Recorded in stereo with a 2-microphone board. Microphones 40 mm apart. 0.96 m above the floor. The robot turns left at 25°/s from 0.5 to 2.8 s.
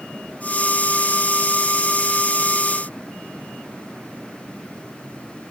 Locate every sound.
Only background noise.